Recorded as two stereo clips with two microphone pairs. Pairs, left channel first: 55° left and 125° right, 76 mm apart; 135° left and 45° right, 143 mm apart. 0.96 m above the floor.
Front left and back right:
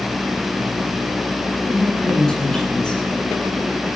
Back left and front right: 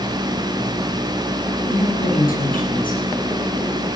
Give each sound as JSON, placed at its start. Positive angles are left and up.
{"t": 1.7, "sound": "a woman speaking", "azimuth_deg": 135, "distance_m": 9.5}